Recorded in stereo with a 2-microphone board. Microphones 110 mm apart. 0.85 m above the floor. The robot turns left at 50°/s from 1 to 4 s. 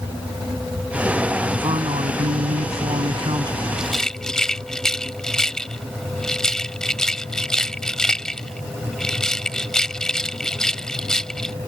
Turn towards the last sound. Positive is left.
turn(degrees=5)  # may be behind; listen again after turning